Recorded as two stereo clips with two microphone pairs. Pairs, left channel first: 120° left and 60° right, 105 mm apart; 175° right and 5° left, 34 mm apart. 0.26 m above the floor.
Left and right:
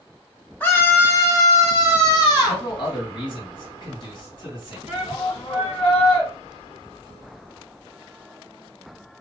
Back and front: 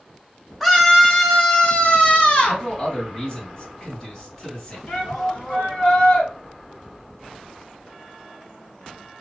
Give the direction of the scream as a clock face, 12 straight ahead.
8 o'clock.